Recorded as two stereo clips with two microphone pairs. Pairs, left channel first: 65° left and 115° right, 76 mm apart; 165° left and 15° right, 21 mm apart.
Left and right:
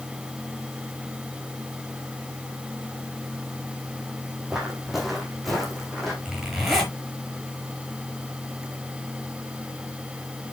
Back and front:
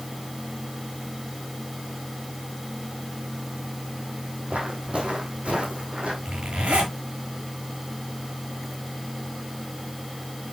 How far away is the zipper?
About 6 m.